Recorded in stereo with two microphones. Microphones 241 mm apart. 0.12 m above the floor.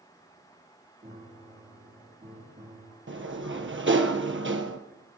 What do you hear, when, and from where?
1.0 s a piano: 35° right (ahead or behind), 3 m
3.1 s a sliding door: 55° right (ahead or behind), 1.2 m